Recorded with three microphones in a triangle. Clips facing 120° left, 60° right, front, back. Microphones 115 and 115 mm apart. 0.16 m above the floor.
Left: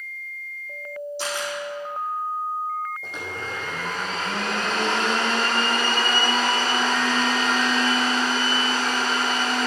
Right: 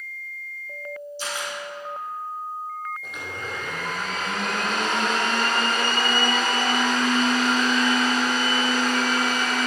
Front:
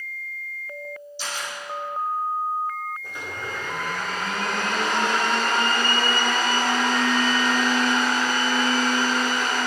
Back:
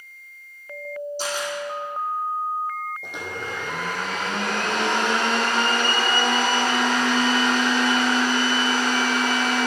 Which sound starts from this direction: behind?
A blender, at 3.0 s.